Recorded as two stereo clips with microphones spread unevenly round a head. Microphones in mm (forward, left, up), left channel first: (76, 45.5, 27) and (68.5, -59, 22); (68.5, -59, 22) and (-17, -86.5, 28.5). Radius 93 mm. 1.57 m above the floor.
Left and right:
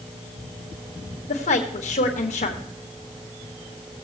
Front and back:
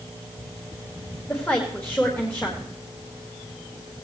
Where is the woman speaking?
100° left, 1.5 m.